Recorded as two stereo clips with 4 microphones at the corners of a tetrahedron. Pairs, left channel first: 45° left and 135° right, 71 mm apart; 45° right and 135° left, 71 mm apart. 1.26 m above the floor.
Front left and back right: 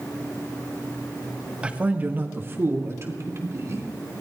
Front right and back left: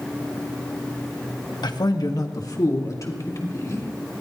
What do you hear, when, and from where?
1.6 s a man speaking: 60° right, 1.4 m; by 4.2 s 90° right, 4 m